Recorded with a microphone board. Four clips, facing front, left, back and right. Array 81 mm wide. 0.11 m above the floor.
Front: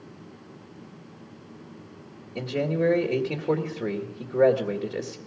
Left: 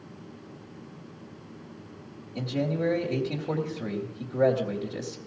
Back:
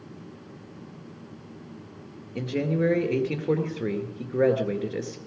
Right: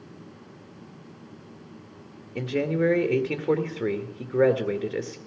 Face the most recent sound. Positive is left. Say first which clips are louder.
# right 4 dB, even
turn(degrees=-90)